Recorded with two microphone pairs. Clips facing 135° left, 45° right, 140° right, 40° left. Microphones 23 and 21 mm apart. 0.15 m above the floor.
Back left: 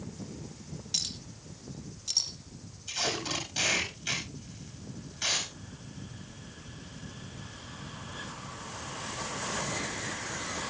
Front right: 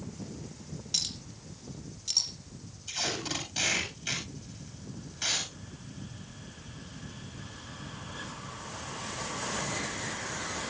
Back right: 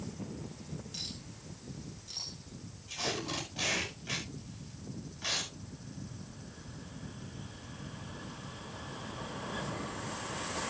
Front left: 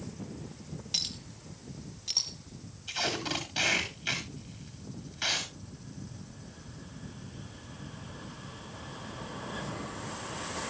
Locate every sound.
0.9 s a clink: 40° left, 3 m
2.9 s tape being pulled: 45° left, 9.5 m